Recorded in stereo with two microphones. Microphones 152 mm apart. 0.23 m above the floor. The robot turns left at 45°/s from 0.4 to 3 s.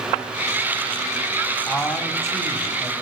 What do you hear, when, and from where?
1.7 s a man speaking: 10° left (ahead or behind), 1.3 m; by 2.9 s 25° left (ahead or behind), 1.3 m